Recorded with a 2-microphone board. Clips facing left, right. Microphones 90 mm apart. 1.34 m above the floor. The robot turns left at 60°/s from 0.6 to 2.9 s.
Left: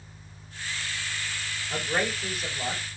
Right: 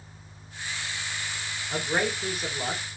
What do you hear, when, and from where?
1.7 s a man speaking: 10° right, 4 m; by 3.0 s 80° right, 4 m